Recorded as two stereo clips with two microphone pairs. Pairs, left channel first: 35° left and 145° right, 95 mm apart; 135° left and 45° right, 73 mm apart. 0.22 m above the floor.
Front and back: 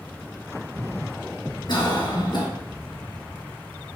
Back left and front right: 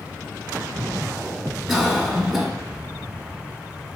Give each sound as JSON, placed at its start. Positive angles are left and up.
{"t": 1.7, "sound": "a cough", "azimuth_deg": 40, "distance_m": 2.5}